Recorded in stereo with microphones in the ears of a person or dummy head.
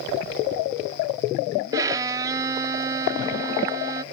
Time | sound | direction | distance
1.7 | a violin | 15° right (ahead or behind) | ?